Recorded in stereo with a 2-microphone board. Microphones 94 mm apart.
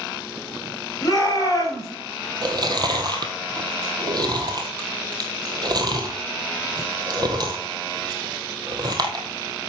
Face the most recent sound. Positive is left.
turn(degrees=-50)  # may be behind; listen again after turning